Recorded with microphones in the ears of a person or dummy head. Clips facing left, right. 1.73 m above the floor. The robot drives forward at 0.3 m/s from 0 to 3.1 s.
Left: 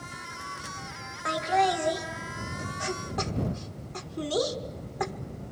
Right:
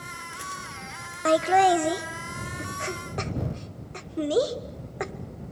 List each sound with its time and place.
1.2 s laughter: 60° right (ahead or behind), 0.8 m; by 5.1 s 40° right (ahead or behind), 1.1 m